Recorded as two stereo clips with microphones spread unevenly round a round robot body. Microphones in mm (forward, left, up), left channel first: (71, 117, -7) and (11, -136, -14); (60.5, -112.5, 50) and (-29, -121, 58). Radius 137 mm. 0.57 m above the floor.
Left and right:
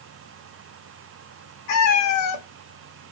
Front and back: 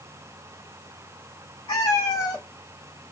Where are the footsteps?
I don't hear footsteps.